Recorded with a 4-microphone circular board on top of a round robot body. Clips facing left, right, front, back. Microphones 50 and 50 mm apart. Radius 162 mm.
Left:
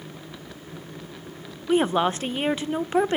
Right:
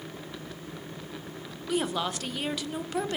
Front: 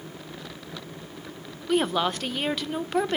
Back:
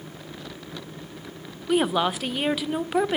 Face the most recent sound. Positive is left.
turn(degrees=100)